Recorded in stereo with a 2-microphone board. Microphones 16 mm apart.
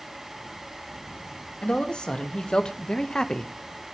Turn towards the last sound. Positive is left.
turn(degrees=30)  # may be behind; listen again after turning